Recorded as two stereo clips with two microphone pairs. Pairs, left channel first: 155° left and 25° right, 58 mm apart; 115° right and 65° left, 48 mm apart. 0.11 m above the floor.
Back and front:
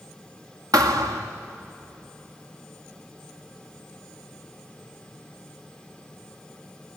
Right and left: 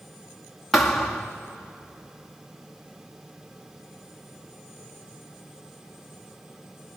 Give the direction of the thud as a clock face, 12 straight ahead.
1 o'clock.